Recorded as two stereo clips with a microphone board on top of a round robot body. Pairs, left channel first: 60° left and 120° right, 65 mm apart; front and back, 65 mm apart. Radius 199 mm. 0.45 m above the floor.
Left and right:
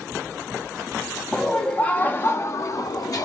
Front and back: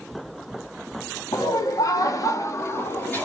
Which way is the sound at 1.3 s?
20° right.